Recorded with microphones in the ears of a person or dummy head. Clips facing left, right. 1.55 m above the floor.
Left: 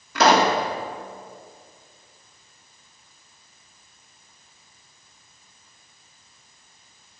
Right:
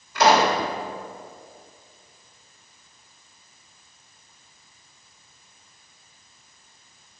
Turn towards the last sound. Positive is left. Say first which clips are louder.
# even
turn(degrees=65)  # may be behind; listen again after turning